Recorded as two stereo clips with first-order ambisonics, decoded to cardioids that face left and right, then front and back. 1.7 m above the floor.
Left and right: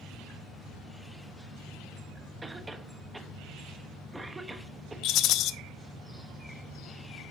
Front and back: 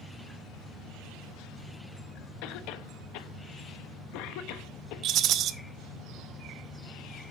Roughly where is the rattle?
Behind left.